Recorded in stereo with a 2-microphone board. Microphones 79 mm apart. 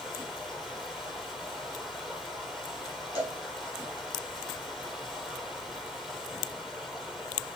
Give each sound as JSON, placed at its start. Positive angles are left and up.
{"t": 0.0, "sound": "running water", "side_deg": 0, "distance_m": 5.5}
{"t": 3.1, "sound": "a cowbell", "side_deg": 35, "distance_m": 5.5}